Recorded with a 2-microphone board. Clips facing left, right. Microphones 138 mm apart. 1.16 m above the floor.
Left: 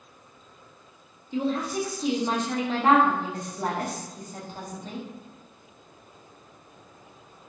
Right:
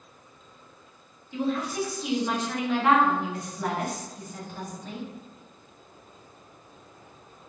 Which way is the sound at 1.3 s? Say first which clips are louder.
Left 1 dB; 30° left (ahead or behind).